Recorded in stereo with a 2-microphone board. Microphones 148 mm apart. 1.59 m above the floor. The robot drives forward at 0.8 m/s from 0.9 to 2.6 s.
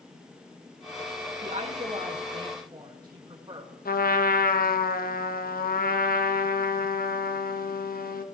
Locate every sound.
1.4 s a woman speaking: 55° right (ahead or behind), 1.3 m; by 3.7 s 30° right (ahead or behind), 2.0 m
3.9 s a trumpet: 80° left, 1.0 m